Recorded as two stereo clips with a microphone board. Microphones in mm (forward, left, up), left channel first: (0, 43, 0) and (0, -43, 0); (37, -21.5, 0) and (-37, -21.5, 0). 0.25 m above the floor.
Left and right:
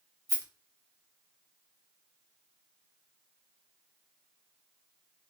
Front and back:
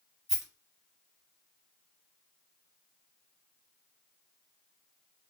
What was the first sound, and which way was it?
A rattle, 100° right.